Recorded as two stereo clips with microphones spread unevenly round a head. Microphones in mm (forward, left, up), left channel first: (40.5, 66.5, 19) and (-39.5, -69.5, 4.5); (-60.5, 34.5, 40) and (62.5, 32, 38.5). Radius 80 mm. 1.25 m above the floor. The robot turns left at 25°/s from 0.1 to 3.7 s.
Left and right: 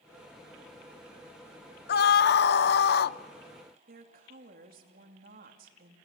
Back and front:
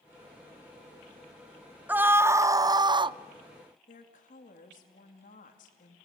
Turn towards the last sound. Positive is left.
turn(degrees=-155)